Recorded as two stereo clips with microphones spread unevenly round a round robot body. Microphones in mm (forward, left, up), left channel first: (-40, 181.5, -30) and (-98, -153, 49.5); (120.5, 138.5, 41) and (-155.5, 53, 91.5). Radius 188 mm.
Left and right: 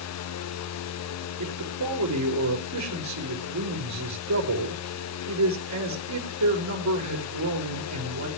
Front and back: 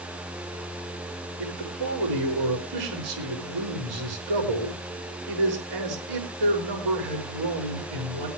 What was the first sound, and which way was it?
A man speaking, 145° right.